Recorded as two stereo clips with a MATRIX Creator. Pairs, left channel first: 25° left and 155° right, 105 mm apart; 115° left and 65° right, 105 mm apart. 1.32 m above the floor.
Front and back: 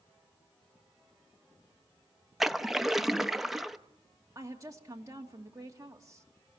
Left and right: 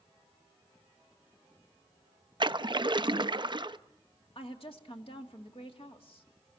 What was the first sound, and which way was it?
A splash, 70° right.